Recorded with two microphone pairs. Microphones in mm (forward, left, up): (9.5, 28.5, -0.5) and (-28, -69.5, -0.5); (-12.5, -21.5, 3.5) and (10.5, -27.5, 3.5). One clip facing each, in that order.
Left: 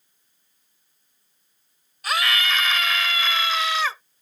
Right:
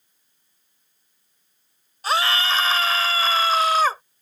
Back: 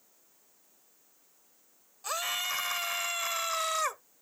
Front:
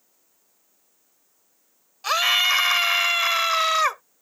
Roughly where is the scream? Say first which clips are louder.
Right 3 dB, front 14 dB; ahead right.